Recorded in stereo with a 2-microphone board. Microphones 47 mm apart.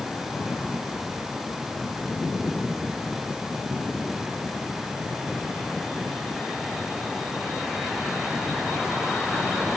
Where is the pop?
No pop in this recording.